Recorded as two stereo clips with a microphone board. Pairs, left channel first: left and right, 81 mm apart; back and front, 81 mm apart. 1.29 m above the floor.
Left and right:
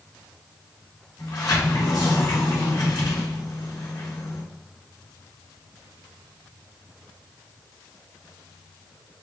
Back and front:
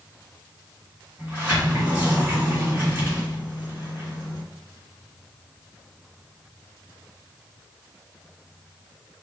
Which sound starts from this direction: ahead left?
A sliding door, at 1.2 s.